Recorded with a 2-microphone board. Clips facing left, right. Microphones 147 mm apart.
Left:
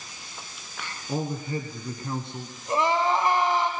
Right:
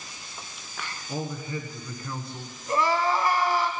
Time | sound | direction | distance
1.1 | a man speaking | 45° left (ahead or behind) | 1.6 m
2.7 | crying | 20° left (ahead or behind) | 1.4 m